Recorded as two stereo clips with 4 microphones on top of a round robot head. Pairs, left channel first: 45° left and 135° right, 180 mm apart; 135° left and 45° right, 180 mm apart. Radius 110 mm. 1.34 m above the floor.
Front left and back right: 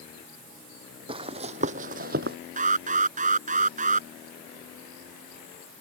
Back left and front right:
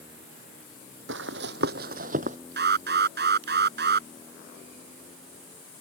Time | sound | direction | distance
1.1 | running footsteps | 70° right | ?
2.6 | an alarm | 80° right | ?